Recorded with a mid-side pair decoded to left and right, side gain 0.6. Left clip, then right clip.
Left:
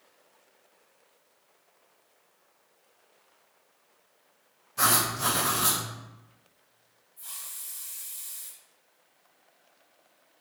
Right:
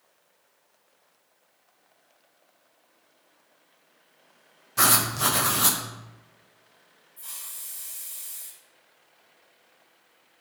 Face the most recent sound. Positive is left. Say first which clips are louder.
# right 1 dB
turn(degrees=-40)